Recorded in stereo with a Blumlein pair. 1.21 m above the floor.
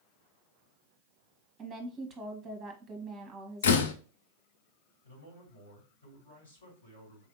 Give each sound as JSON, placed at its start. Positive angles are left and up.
{"t": 1.6, "sound": "a woman speaking", "azimuth_deg": -15, "distance_m": 1.4}
{"t": 3.6, "sound": "a door slam", "azimuth_deg": 60, "distance_m": 0.6}
{"t": 5.0, "sound": "a man speaking", "azimuth_deg": 65, "distance_m": 3.5}